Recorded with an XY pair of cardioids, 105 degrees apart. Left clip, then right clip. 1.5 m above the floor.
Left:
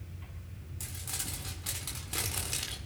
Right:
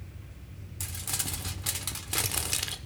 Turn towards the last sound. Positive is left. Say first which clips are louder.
# right 5 dB
turn(degrees=-40)